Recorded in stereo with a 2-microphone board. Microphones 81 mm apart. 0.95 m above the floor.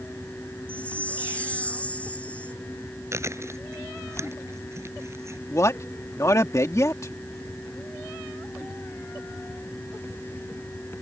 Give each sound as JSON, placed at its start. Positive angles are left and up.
{"t": 0.7, "sound": "a chime", "side_deg": 15}
{"t": 3.1, "sound": "chewing", "side_deg": -35}
{"t": 5.5, "sound": "a man speaking", "side_deg": 40}